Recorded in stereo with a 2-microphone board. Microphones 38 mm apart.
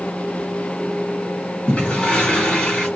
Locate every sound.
1.7 s a toilet flushing: 30° left (ahead or behind), 2.5 m